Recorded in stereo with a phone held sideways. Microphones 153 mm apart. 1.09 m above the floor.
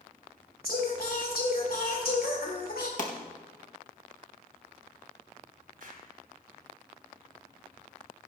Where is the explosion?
65° right (ahead or behind), 1.9 m.